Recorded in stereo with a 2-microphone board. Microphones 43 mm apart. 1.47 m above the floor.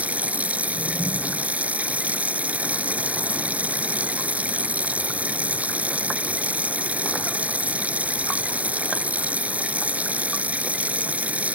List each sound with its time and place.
0.0 s running water: 35° right (ahead or behind)